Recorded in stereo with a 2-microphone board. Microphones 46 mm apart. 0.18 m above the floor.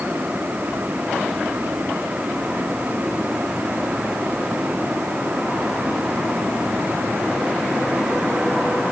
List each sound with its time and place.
Only background noise.